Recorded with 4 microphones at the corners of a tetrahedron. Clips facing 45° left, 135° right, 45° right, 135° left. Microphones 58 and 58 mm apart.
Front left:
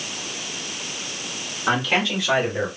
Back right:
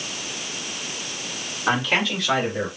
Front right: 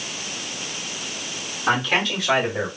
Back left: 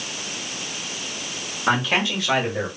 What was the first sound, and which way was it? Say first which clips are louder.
A man speaking: even, even; 170° left.